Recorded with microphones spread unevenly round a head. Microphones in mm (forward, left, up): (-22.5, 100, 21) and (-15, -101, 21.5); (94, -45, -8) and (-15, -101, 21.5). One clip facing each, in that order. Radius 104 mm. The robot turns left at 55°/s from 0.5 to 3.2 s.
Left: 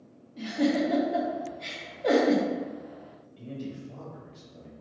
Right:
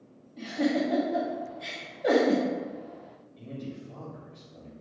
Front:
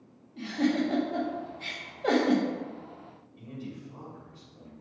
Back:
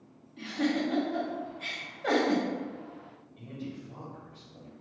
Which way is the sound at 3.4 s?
170° left.